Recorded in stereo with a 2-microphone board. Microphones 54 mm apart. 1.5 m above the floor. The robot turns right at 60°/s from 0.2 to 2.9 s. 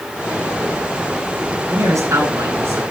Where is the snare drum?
I don't hear a snare drum.